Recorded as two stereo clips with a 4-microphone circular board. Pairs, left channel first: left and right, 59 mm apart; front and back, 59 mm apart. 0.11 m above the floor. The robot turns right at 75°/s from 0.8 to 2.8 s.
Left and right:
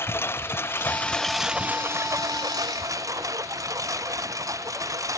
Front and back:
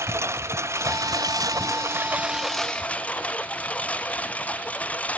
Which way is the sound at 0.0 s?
140° left.